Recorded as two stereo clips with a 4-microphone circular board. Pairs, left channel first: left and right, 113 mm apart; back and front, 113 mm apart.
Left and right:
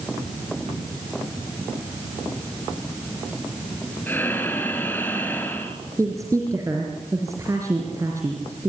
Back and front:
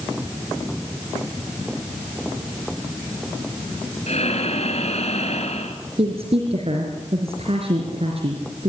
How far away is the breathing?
About 2.5 m.